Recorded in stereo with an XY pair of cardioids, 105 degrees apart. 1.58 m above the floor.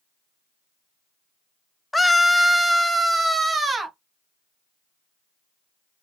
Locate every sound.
1.9 s a scream: 10° left, 0.6 m; by 4.0 s 35° right, 1.4 m